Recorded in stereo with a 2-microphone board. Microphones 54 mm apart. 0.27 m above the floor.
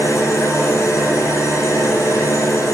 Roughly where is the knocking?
No knocking in this recording.